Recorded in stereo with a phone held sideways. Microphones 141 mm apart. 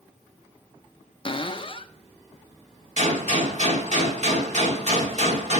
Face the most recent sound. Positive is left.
turn(degrees=-55)  # may be behind; listen again after turning